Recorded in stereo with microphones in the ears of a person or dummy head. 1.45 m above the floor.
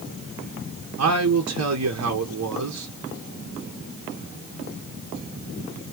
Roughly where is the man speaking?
Right.